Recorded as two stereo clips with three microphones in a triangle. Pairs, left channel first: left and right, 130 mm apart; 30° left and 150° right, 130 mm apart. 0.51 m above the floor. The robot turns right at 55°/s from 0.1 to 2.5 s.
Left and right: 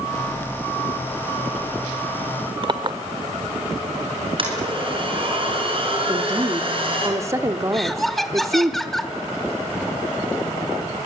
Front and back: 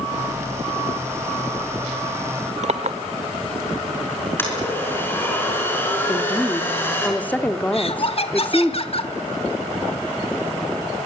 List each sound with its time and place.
2.6 s a clink: 140° right, 1.1 m
4.4 s a blender: 45° right, 5.5 m
6.1 s a woman speaking: 40° right, 1.1 m
7.7 s laughter: straight ahead, 1.3 m